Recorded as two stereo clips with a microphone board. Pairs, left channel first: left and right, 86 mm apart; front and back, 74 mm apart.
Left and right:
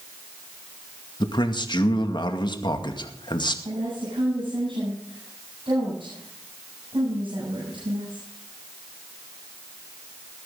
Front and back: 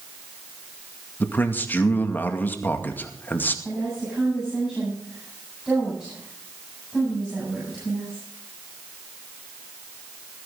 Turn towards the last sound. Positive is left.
turn(degrees=-100)